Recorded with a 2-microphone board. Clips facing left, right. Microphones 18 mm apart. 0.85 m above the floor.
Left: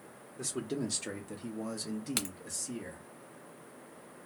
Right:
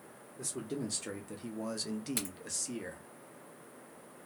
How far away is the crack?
About 0.8 m.